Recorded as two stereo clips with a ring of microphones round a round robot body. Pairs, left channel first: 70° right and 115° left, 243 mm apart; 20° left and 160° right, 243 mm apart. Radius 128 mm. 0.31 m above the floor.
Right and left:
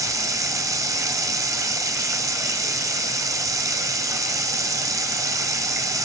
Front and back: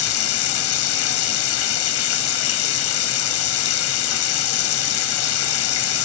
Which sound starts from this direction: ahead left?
Running water, at 0.0 s.